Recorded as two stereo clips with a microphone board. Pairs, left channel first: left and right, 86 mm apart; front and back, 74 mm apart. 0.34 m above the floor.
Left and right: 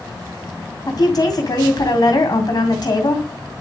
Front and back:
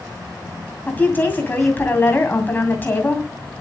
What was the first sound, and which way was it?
A woman speaking, 60° left.